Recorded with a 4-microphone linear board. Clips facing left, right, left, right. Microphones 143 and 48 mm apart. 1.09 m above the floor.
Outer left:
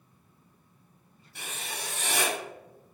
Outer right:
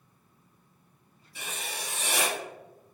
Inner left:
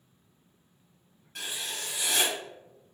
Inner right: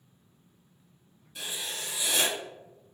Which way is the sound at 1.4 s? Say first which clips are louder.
Outer right 1 dB, even; 55° left (ahead or behind).